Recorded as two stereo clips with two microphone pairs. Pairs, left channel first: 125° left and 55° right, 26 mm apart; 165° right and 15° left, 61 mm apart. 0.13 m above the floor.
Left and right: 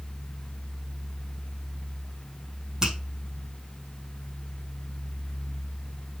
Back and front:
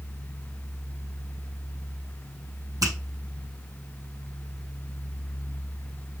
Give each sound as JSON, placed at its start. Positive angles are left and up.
{"t": 2.8, "sound": "a finger snap", "azimuth_deg": 10, "distance_m": 5.5}